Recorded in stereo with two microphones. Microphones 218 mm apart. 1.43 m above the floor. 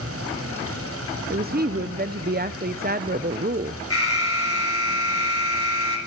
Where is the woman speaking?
40° right (ahead or behind), 0.7 m.